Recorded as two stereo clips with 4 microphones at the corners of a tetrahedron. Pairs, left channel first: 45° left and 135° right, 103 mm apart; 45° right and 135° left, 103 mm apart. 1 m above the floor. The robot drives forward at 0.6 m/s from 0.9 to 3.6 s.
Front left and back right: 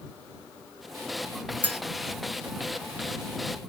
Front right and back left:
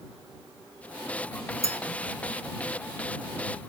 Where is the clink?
155° left, 1.5 m.